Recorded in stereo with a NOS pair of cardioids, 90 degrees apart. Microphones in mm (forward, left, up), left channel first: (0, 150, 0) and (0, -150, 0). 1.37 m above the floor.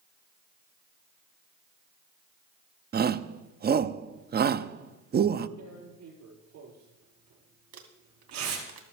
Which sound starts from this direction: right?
Tearing paper, at 5.6 s.